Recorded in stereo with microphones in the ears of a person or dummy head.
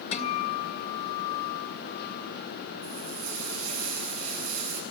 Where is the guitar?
35° left (ahead or behind), 2.0 m.